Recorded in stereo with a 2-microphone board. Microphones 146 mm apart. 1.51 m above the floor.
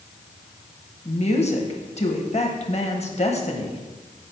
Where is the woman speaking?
45° left (ahead or behind), 1.1 m.